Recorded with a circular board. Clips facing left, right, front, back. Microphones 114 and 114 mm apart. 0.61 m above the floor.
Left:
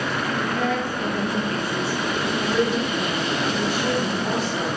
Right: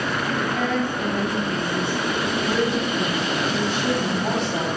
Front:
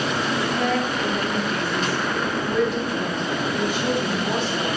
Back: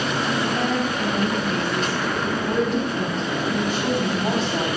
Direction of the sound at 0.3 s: 155° right.